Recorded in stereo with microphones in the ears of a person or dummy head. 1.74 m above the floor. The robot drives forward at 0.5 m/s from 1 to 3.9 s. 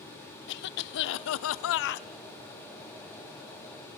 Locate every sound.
0.5 s a cough: 65° left (ahead or behind), 0.6 m; by 2.1 s 55° left (ahead or behind), 0.6 m